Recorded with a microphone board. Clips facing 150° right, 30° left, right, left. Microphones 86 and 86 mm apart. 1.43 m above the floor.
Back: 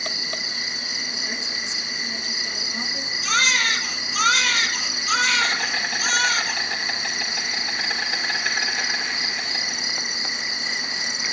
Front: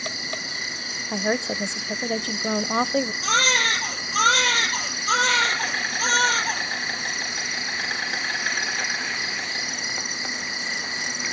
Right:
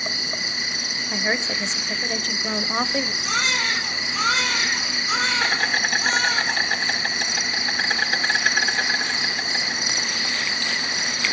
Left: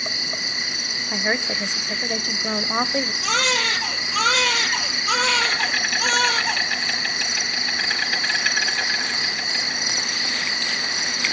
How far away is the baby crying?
About 4.5 m.